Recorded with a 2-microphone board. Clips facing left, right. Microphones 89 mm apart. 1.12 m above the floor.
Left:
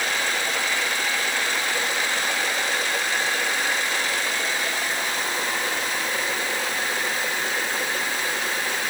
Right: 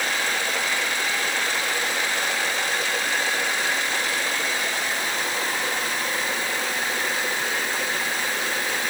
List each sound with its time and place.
Only background noise.